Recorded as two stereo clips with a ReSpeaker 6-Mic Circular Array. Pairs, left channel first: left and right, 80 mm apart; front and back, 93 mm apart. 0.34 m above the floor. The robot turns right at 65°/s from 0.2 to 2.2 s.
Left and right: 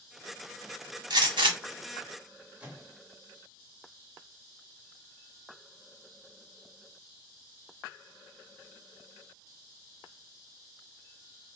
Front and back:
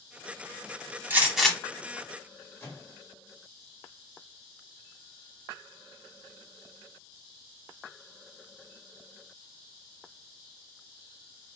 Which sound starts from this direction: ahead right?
A microwave, at 2.6 s.